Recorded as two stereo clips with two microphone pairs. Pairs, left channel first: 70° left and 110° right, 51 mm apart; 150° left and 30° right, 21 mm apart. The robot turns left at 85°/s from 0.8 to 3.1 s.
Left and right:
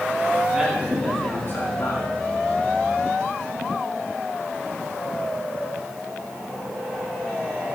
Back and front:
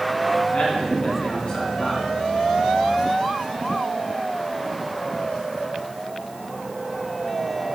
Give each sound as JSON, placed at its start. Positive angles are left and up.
{"t": 0.5, "sound": "a man speaking", "azimuth_deg": 170, "distance_m": 3.0}